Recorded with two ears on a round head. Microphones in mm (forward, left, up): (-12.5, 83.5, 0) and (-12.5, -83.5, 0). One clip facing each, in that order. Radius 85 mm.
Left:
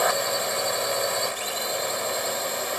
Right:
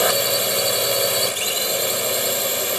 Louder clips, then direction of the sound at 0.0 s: Right 4 dB; 35° right (ahead or behind).